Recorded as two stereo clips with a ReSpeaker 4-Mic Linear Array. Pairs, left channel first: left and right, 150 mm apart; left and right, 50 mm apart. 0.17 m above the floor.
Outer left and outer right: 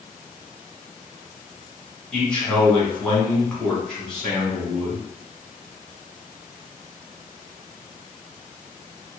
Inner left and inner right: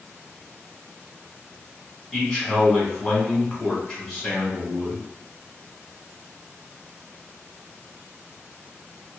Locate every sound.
2.1 s a man speaking: 5° left (ahead or behind), 1.3 m